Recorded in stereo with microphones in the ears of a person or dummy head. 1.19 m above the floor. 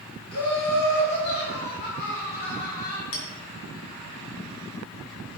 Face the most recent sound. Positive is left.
turn(degrees=70)  # may be behind; listen again after turning